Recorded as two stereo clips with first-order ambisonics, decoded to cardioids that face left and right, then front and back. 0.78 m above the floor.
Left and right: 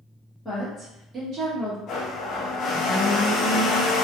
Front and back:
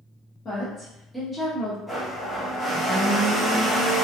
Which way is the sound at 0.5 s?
15° left.